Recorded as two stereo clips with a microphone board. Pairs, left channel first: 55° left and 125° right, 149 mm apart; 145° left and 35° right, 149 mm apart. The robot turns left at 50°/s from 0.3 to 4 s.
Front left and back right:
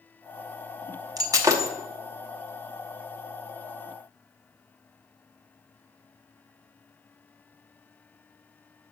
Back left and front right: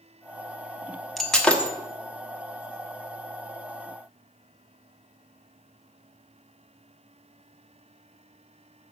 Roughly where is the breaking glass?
Behind right.